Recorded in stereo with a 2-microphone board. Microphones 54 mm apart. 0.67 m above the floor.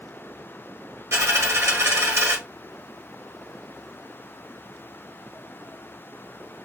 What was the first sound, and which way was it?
A dropped coin, 65° right (ahead or behind).